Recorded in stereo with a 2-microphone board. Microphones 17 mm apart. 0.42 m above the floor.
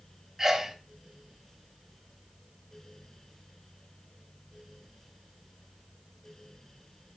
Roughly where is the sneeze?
Right.